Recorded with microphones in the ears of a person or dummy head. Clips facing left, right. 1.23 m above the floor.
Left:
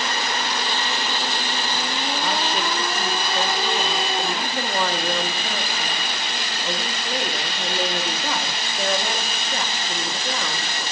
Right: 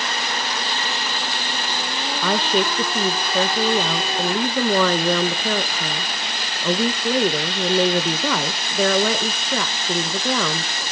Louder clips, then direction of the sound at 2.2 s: Right 7 dB; 55° right (ahead or behind).